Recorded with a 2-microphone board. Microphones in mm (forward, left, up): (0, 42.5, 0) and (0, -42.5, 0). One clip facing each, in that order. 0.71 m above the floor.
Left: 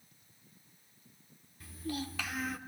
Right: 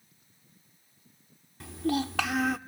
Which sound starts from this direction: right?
A child speaking, at 1.6 s.